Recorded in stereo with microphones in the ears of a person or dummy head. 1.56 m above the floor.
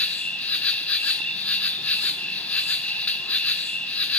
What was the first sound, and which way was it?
An insect, 10° left (ahead or behind).